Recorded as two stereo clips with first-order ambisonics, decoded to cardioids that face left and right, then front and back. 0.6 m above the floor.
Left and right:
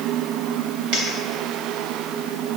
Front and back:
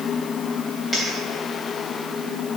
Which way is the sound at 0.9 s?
75° right.